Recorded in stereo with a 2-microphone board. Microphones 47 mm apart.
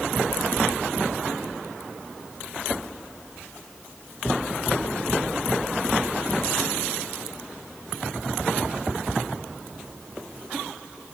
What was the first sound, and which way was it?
Only background noise.